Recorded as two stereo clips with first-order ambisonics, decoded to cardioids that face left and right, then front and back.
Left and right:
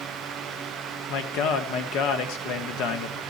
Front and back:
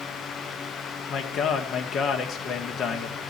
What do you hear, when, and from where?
1.1 s a man speaking: 60° left, 1.3 m